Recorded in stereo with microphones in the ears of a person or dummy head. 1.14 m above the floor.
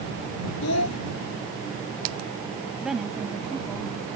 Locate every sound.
0.6 s a child speaking: 80° left
2.8 s a woman speaking: 5° right (ahead or behind)